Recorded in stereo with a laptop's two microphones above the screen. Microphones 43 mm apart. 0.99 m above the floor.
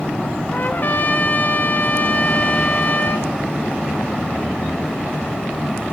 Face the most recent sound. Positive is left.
turn(degrees=45)  # may be behind; listen again after turning